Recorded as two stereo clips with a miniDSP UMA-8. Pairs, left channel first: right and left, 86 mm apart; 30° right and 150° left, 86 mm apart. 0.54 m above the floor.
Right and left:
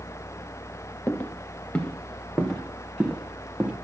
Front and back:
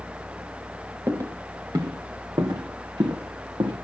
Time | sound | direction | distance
1.1 | footsteps | 155° right | 3 m